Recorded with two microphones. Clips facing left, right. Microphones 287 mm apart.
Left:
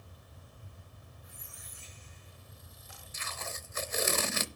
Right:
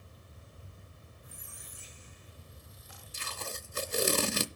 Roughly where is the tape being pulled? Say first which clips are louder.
Right 2 dB; right.